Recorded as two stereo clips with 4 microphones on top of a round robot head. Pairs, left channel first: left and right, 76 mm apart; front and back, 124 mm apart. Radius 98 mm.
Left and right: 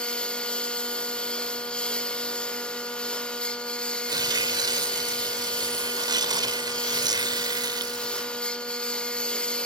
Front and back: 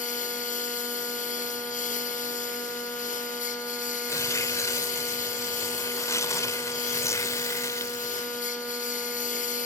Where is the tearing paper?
65° right.